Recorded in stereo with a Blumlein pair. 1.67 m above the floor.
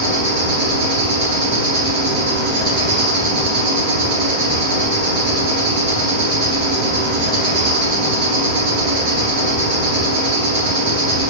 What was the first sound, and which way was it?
An insect, 45° right.